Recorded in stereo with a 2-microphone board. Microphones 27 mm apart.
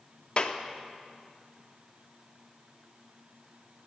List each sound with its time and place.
0.4 s a clap: 40° left (ahead or behind), 0.6 m